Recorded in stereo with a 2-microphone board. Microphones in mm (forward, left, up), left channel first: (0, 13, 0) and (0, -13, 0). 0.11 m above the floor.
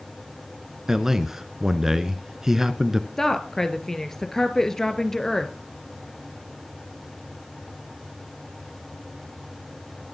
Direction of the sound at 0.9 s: 20° right (ahead or behind).